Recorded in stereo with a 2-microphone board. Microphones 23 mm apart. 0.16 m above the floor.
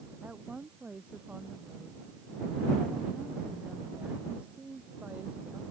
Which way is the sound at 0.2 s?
75° right (ahead or behind).